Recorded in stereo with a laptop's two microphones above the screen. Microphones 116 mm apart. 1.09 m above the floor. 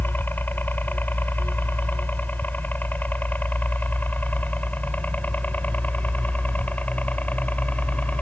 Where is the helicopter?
15° left (ahead or behind); by 8.2 s 10° left (ahead or behind).